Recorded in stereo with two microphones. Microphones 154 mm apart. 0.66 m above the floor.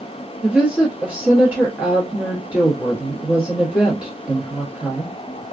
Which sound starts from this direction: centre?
A woman speaking, at 0.4 s.